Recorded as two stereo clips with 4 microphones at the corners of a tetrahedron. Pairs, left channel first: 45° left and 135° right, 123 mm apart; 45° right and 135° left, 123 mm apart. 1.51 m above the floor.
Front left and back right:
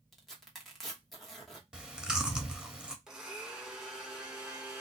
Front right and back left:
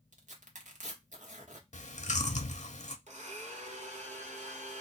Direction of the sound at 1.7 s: 55° right.